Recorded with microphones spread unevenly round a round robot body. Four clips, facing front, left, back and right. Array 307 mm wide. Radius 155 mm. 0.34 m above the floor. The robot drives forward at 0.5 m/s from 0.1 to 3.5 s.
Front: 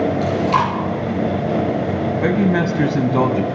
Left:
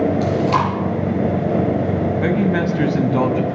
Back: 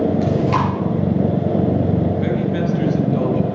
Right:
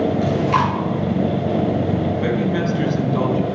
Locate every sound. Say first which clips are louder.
0.2 s chewing: left 1 dB, front 1 dB; 135° left, 4.5 m
2.1 s a man speaking: left 2 dB, front 3 dB; 20° left, 3.5 m; by 3.5 s 25° left, 2.5 m